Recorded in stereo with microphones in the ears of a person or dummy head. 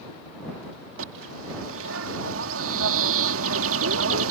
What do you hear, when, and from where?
1.0 s a bird: 80° right